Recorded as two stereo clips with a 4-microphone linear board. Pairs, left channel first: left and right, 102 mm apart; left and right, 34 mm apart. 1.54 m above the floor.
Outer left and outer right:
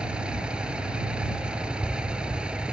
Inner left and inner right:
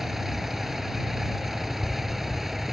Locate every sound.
0.0 s a vehicle: 10° right (ahead or behind)